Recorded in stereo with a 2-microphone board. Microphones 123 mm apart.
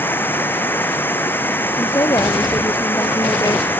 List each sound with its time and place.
0.0 s running water: 15° left (ahead or behind)
1.8 s a woman speaking: 30° left (ahead or behind)